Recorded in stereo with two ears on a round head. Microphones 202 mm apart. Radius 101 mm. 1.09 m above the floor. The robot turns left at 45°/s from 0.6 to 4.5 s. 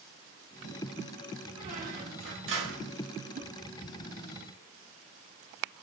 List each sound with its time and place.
1.6 s a squeak: 30° right, 1.0 m; by 2.9 s 90° right, 1.0 m
3.4 s a whoosh: 35° right (ahead or behind), 0.6 m; by 3.5 s 30° right (ahead or behind), 0.6 m